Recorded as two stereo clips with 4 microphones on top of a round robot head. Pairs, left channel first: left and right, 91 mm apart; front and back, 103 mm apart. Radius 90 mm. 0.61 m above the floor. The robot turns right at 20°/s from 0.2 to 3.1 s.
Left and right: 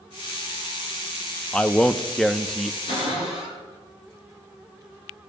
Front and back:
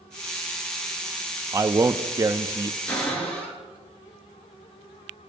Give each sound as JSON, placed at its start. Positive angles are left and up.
{"t": 1.5, "sound": "a man speaking", "azimuth_deg": 160, "distance_m": 0.6}
{"t": 2.9, "sound": "a cupboard door", "azimuth_deg": 70, "distance_m": 5.0}